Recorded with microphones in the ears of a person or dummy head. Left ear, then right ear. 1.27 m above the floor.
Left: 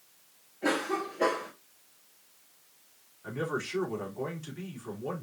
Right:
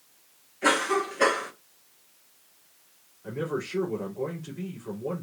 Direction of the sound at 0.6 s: 40° right (ahead or behind).